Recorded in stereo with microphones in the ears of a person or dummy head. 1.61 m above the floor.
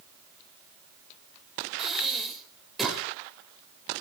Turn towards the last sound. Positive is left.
turn(degrees=10)  # may be behind; listen again after turning